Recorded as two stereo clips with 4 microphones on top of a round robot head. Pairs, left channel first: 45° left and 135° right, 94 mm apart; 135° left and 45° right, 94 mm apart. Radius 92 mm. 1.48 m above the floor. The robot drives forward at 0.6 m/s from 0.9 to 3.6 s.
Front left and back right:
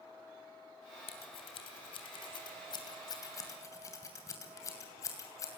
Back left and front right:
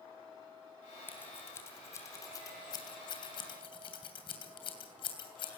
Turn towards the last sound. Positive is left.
turn(degrees=100)